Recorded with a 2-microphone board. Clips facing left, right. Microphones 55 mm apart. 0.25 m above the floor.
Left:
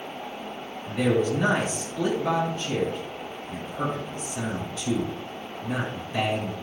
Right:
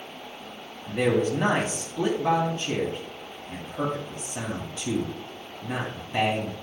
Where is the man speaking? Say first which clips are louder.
Even; 40° right (ahead or behind), 1.4 m.